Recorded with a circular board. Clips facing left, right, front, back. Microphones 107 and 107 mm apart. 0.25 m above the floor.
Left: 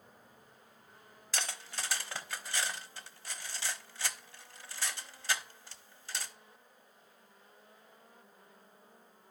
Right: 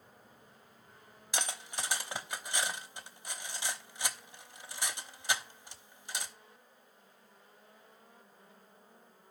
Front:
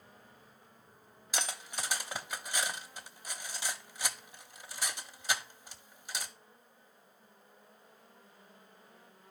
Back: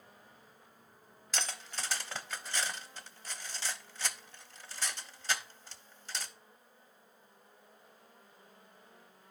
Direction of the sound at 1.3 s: 55° right.